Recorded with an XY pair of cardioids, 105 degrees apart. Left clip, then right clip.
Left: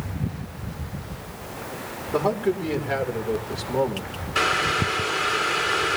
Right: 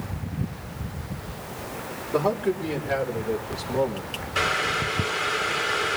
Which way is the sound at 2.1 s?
10° left.